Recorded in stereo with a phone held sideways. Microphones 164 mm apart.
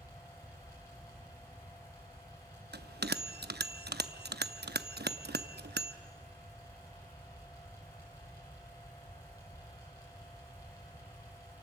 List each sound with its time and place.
0.0 s a fan: 20° left (ahead or behind), 9.5 m
2.7 s a bell: 85° right, 0.7 m